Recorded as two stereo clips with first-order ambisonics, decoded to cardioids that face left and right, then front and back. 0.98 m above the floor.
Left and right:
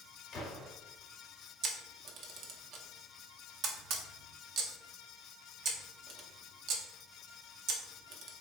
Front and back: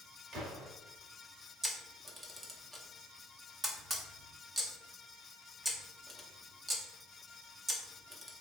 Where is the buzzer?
I don't hear a buzzer.